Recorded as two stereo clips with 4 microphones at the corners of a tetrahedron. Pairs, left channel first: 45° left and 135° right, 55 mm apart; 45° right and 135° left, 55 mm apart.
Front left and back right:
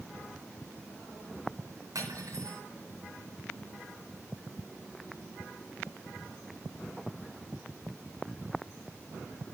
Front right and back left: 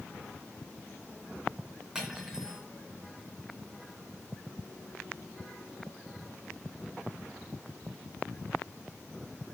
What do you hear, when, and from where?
1.9 s cutlery clinking: 145° right, 3 m